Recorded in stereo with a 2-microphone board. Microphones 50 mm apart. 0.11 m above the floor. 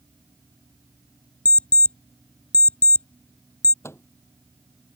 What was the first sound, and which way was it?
An alarm clock, 30° left (ahead or behind).